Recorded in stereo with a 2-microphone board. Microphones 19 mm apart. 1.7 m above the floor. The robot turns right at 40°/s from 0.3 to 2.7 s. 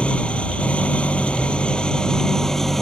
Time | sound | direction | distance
0.0 | an engine running | 70° left | ?